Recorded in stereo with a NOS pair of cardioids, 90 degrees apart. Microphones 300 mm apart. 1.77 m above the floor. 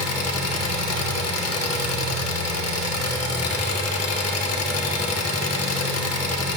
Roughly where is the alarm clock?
No alarm clock in this recording.